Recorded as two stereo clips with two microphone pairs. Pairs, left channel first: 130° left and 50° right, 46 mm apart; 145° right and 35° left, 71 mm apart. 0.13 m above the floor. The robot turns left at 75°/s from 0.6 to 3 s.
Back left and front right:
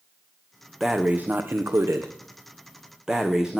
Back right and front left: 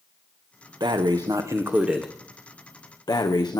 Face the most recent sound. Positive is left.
turn(degrees=-125)